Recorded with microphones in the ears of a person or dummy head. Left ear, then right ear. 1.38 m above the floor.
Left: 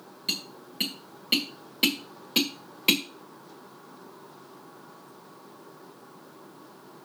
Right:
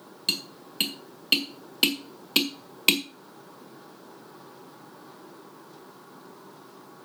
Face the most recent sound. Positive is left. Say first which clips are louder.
# right 3 dB
turn(degrees=-15)  # may be behind; listen again after turning